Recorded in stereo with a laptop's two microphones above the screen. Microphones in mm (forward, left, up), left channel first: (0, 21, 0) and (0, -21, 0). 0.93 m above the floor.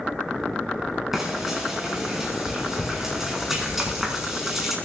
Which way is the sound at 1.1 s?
5° right (ahead or behind).